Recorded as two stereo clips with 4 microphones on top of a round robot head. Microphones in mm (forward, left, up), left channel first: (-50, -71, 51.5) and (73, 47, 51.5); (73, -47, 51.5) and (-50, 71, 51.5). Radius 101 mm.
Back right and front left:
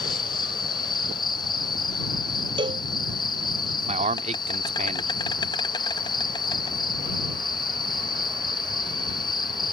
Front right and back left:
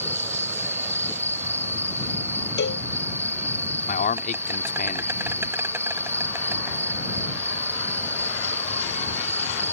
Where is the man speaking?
5° right.